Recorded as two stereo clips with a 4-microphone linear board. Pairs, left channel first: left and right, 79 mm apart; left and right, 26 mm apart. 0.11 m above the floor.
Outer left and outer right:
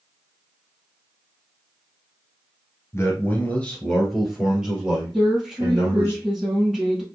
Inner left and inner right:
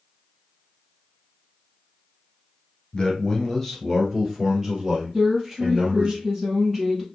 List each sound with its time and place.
2.9 s a man speaking: 35° left (ahead or behind), 1.3 m; by 6.1 s 20° right (ahead or behind), 3 m
5.1 s a woman speaking: 5° right (ahead or behind), 3.5 m